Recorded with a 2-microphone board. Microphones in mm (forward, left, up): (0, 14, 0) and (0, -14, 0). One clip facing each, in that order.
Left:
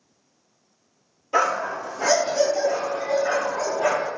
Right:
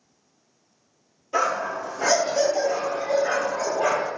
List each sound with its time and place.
1.3 s a dog barking: 20° left (ahead or behind), 1.1 m; by 4.1 s 70° right (ahead or behind), 1.9 m